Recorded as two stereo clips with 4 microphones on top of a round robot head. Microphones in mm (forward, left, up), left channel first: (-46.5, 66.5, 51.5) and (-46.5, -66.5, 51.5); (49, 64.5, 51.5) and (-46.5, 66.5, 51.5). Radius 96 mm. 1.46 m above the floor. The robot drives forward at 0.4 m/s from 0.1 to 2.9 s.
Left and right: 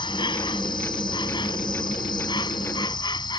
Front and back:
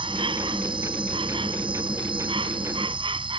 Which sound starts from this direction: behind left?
An insect, at 0.0 s.